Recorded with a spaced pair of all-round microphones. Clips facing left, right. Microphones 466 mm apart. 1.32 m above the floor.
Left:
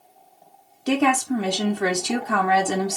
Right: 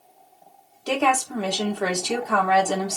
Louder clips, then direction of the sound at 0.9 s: Left 4 dB; 35° left (ahead or behind).